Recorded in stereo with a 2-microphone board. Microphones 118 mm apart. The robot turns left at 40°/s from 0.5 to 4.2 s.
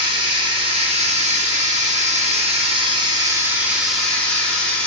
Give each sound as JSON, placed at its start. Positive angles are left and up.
{"t": 0.0, "sound": "running water", "azimuth_deg": -40, "distance_m": 0.8}